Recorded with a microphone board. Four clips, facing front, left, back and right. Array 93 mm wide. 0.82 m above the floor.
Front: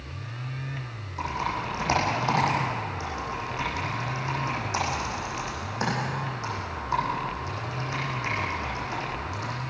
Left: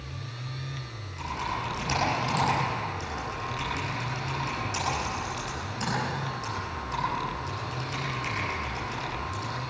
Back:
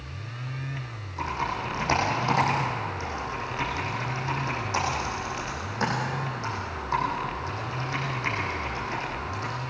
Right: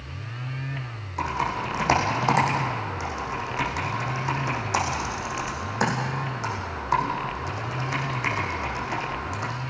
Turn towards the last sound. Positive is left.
turn(degrees=-90)